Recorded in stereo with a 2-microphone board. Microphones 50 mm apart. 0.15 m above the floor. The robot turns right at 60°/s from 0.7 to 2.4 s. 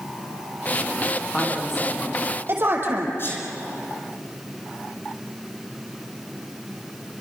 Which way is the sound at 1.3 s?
15° left (ahead or behind).